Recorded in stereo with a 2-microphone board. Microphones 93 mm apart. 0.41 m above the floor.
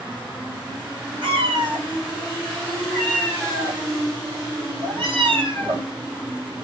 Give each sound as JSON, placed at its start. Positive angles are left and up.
{"t": 1.2, "sound": "a cat meowing", "side_deg": -60, "distance_m": 6.0}